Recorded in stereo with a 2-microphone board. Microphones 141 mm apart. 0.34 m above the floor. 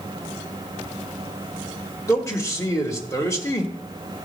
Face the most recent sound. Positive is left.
turn(degrees=20)  # may be behind; listen again after turning